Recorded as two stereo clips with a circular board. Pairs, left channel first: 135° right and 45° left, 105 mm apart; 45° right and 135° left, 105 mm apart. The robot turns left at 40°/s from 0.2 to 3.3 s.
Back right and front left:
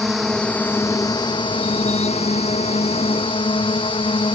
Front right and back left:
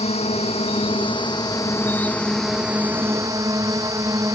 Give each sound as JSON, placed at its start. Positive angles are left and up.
{"t": 0.0, "sound": "a drone", "azimuth_deg": -45}